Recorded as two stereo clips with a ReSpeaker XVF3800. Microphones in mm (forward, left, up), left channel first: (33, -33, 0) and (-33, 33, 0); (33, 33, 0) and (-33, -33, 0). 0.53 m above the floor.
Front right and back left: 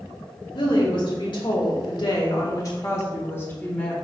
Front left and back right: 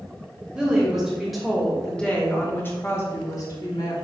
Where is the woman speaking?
55° right, 3 m; by 4.0 s 30° left, 2 m.